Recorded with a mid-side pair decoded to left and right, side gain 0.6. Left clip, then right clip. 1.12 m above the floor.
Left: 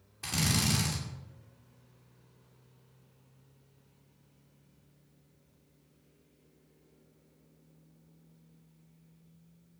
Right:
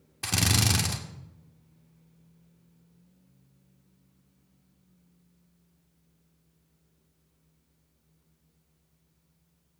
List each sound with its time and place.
0.2 s a drill: 40° right, 2.5 m